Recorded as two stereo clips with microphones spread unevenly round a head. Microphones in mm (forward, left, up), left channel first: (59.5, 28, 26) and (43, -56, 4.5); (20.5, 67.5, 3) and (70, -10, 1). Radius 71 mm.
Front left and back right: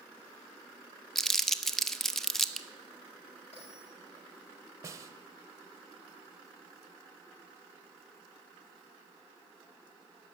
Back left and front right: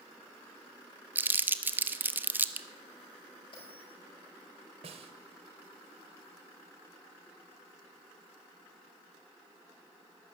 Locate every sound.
1.1 s crumpling: 10° left, 0.8 m
3.5 s a bell: 95° left, 7 m
4.8 s a snare drum: 55° right, 1.3 m